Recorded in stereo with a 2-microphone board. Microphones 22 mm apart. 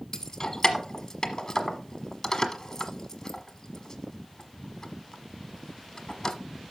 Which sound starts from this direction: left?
Keys jangling, at 0.1 s.